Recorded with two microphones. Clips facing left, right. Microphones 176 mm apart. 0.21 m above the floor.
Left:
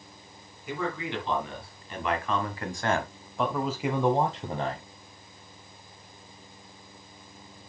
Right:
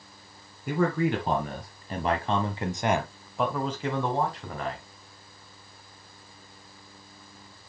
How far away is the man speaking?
About 2 m.